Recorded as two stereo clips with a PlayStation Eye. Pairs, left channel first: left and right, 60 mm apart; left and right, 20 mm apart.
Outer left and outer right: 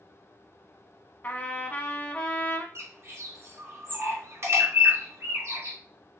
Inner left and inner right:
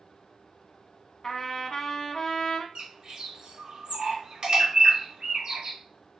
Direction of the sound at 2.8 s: 50° right (ahead or behind).